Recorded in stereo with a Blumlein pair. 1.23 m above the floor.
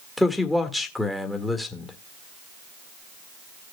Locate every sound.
0.2 s a man speaking: 5° left, 1.7 m